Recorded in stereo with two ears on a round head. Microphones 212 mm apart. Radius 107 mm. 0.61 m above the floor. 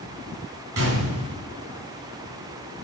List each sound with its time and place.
0.8 s a gunshot: 65° right (ahead or behind), 5.5 m